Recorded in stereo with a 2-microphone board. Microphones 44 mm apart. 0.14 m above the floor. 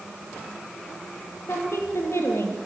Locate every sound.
1.5 s a woman speaking: 70° left (ahead or behind), 4.5 m